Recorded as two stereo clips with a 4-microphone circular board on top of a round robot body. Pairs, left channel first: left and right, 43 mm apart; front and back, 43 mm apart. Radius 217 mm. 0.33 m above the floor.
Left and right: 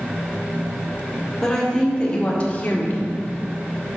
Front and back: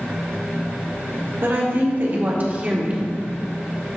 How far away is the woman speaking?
About 2.5 m.